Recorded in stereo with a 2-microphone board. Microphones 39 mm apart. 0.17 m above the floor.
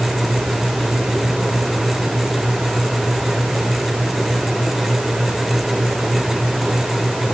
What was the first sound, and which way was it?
Only background noise.